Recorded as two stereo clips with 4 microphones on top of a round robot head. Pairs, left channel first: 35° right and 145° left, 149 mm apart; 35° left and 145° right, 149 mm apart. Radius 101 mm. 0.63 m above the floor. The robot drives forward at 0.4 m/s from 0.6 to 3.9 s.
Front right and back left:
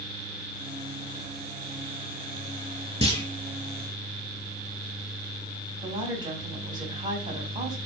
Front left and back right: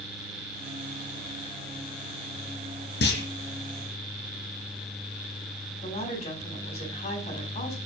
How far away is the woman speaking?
About 4.5 m.